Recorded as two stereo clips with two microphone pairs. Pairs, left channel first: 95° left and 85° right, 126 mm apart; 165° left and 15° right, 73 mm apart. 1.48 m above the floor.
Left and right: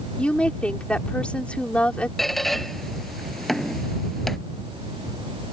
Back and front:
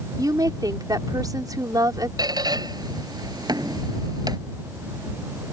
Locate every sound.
0.2 s a woman speaking: 15° left
2.2 s a squeak: 10° left